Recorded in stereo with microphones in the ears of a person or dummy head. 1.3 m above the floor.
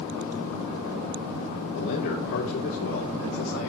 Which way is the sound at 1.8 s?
60° left (ahead or behind).